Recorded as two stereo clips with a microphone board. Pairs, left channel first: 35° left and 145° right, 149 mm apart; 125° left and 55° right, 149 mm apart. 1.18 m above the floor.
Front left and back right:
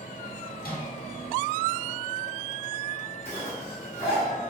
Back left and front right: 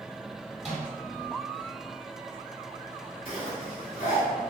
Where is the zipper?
140° left, 1.4 m.